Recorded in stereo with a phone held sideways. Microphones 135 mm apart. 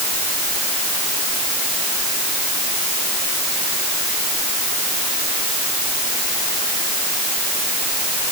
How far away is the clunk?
I don't hear a clunk.